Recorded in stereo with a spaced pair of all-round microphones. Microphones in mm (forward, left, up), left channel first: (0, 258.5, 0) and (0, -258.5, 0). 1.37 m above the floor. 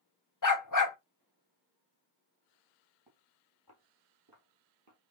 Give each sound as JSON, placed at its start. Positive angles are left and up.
{"t": 0.4, "sound": "a dog barking", "side_deg": 35, "distance_m": 0.9}
{"t": 3.1, "sound": "footsteps", "side_deg": -50, "distance_m": 2.0}